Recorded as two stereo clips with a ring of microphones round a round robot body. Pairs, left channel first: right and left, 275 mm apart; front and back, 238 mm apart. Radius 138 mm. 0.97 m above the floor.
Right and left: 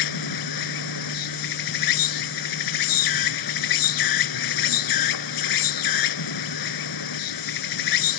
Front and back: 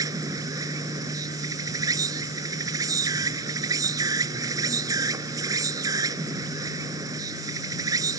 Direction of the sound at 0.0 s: 100° right.